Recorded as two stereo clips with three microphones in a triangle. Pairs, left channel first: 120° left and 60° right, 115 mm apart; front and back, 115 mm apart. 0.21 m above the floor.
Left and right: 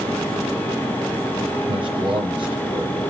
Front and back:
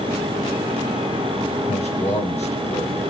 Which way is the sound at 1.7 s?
15° right.